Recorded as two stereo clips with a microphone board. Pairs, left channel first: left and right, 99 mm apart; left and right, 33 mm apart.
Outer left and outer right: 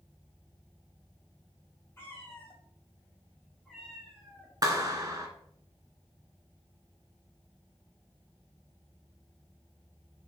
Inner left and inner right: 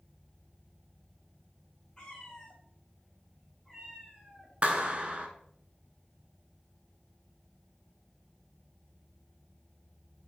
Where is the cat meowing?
25° left (ahead or behind), 2.5 m; by 4.5 s centre (ahead or behind), 3.5 m.